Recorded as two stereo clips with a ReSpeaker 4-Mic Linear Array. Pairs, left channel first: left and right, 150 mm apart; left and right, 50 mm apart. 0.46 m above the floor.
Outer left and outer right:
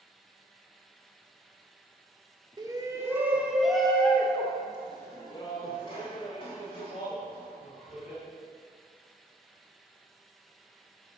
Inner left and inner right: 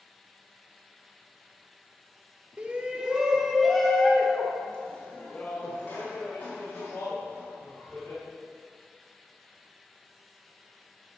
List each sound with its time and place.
2.6 s a shout: 25° right (ahead or behind), 1.0 m; by 8.2 s 40° left (ahead or behind), 2.5 m